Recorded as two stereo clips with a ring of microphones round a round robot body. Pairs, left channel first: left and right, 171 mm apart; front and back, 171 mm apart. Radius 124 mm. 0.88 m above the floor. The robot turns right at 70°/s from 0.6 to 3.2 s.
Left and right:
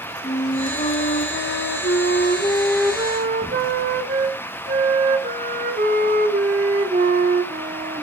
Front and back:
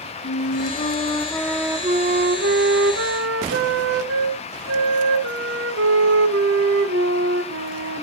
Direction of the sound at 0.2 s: 30° left.